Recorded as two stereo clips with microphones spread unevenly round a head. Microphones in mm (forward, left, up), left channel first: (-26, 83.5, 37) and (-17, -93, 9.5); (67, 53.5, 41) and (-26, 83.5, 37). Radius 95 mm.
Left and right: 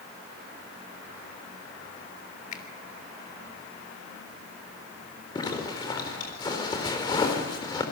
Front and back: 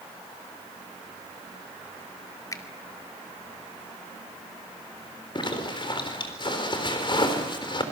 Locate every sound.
2.5 s a finger snap: 40° left, 2.5 m
5.3 s a zipper: 25° left, 4 m